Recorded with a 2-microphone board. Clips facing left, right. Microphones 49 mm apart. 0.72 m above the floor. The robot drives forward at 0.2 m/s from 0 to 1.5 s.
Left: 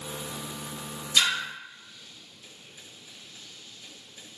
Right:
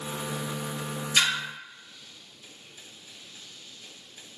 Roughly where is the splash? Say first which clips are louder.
Even; right.